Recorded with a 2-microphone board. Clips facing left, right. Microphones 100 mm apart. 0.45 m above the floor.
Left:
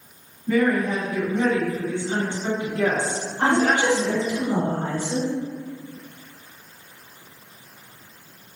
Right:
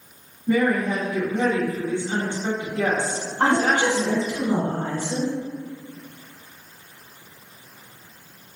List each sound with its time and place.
0.5 s a woman speaking: 20° right (ahead or behind), 1.0 m
3.4 s a woman speaking: 50° right (ahead or behind), 1.6 m